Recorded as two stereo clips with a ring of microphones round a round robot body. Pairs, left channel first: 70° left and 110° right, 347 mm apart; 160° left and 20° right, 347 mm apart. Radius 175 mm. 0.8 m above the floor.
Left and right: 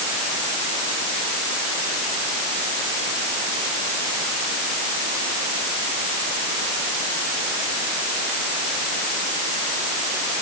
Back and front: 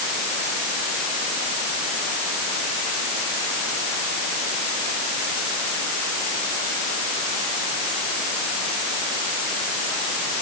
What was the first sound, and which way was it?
Only background noise.